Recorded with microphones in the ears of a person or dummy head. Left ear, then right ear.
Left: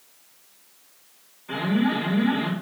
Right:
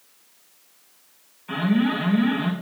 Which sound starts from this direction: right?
An alarm, at 1.5 s.